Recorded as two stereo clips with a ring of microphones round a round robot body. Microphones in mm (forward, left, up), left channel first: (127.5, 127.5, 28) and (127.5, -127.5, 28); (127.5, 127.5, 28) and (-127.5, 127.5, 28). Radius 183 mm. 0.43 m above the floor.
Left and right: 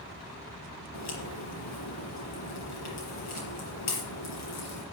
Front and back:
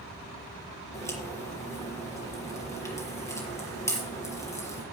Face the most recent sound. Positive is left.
turn(degrees=80)